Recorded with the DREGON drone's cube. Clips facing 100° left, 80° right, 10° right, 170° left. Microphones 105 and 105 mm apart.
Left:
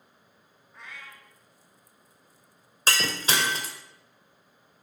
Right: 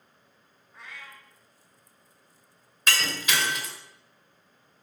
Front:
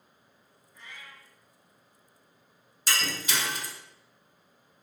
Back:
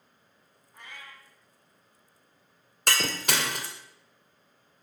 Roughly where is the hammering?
No hammering in this recording.